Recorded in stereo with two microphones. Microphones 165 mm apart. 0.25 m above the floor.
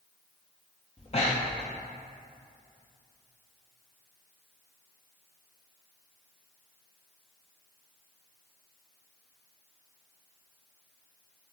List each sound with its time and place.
1.0 s breathing: 40° left (ahead or behind), 1.0 m